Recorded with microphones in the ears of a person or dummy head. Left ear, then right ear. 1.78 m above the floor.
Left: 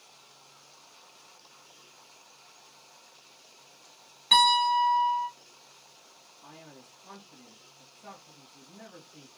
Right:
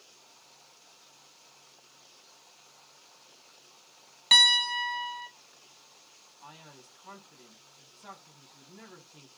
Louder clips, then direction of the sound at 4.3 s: Even; 35° right (ahead or behind).